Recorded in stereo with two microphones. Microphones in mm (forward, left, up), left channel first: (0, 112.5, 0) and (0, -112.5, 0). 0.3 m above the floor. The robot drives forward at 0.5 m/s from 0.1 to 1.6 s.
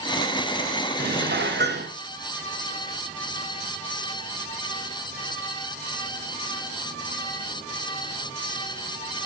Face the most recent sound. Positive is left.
turn(degrees=-50)  # may be behind; listen again after turning